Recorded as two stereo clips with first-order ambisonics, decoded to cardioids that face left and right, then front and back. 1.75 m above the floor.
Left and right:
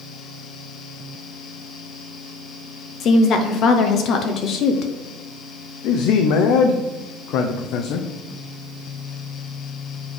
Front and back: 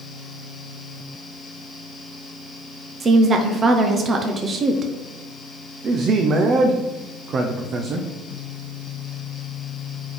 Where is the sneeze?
I don't hear a sneeze.